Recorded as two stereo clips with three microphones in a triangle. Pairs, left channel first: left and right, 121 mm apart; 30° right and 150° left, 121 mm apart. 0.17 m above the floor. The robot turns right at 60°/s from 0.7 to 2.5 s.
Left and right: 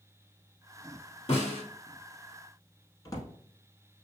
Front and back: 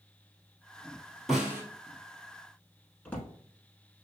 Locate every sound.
1.3 s a snare drum: 60° left, 1.4 m; by 1.6 s 80° left, 1.4 m
3.0 s a drawer: 40° left, 1.0 m